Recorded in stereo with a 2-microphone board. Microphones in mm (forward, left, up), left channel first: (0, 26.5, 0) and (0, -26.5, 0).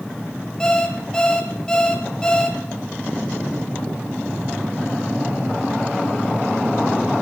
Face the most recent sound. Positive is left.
turn(degrees=15)  # may be behind; listen again after turning